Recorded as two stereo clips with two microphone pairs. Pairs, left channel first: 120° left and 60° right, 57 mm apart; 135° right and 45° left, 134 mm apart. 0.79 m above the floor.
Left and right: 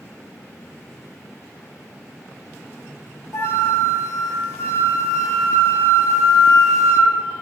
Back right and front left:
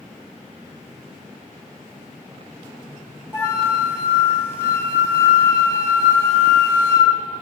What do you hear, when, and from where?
3.3 s a flute: 155° left, 1.2 m